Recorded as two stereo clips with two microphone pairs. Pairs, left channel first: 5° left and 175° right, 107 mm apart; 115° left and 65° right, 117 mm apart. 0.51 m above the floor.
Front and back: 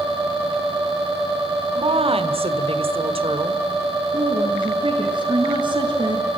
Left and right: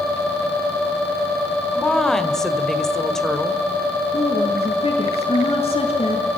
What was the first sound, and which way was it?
A woman speaking, 160° right.